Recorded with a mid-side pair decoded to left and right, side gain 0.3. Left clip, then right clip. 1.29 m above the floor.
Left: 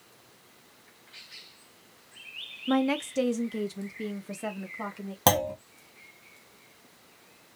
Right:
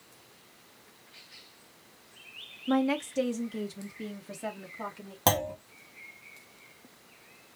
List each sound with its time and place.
2.7 s a woman speaking: 30° left, 0.7 m; by 5.2 s 45° left, 2 m
5.3 s a clunk: 35° left, 1.9 m